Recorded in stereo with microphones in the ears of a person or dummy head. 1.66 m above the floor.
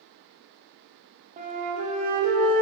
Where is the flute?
40° right (ahead or behind), 0.8 m.